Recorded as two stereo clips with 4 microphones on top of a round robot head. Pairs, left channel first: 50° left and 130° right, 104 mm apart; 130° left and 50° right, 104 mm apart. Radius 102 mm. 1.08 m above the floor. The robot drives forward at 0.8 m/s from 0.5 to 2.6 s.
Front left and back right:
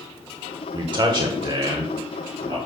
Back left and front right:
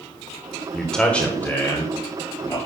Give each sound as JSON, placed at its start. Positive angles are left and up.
{"t": 0.7, "sound": "a man speaking", "azimuth_deg": -145, "distance_m": 0.9}